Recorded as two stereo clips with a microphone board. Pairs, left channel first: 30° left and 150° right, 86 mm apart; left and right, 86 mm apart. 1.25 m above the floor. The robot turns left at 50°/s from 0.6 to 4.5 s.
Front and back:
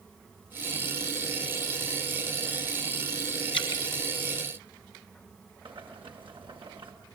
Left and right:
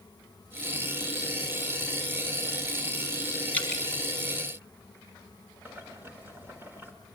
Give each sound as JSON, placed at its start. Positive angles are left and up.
{"t": 3.5, "sound": "dripping", "azimuth_deg": 20, "distance_m": 4.5}
{"t": 5.7, "sound": "boiling", "azimuth_deg": -155, "distance_m": 4.0}